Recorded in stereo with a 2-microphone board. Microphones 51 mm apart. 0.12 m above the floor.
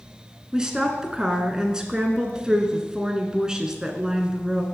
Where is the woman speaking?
15° right (ahead or behind), 1.1 m.